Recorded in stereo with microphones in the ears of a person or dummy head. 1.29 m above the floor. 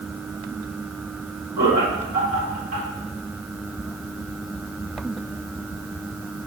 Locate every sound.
1.6 s laughter: 50° right (ahead or behind), 3.5 m